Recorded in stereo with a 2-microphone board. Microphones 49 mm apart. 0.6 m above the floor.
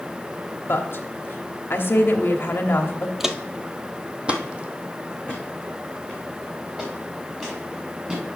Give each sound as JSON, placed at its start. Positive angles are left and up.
{"t": 0.7, "sound": "a woman speaking", "side_deg": 50, "distance_m": 0.9}
{"t": 3.2, "sound": "footsteps", "side_deg": -5, "distance_m": 0.6}